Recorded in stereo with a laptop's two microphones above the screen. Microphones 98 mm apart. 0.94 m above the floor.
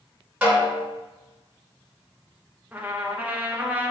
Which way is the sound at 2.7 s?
15° right (ahead or behind).